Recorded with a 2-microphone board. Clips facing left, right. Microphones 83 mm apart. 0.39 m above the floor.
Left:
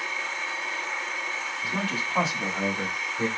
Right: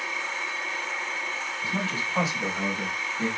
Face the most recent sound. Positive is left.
turn(degrees=35)  # may be behind; listen again after turning